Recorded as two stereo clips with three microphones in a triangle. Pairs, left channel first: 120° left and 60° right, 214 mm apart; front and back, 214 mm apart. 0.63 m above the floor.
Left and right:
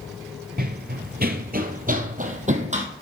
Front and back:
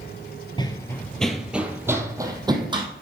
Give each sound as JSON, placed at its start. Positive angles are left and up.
{"t": 0.6, "sound": "running footsteps", "azimuth_deg": -60, "distance_m": 0.8}